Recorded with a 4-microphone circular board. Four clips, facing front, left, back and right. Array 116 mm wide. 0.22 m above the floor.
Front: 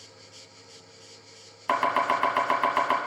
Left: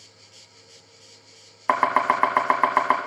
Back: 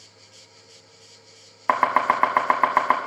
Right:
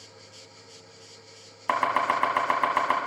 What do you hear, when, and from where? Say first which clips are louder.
1.7 s chopping: left 4 dB, back 4 dB; 145° left, 1.0 m